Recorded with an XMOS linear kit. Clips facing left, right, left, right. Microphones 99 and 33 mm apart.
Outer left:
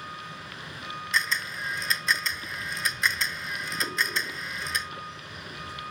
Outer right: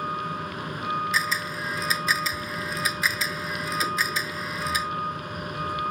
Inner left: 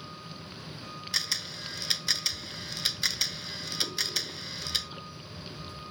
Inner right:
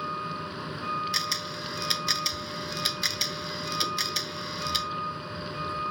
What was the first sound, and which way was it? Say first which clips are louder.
A vehicle: outer right 10 dB, inner right 11 dB; 50° right (ahead or behind).